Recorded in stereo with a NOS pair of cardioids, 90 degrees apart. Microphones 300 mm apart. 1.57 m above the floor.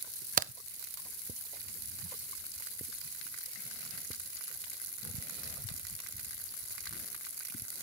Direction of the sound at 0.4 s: 30° right.